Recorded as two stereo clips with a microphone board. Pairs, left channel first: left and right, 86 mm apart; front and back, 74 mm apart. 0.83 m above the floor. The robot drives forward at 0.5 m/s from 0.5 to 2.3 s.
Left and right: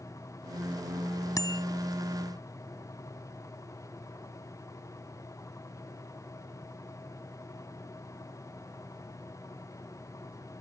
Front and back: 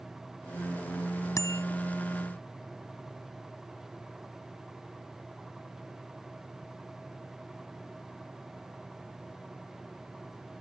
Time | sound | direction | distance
1.4 | a bicycle bell | 45° left | ?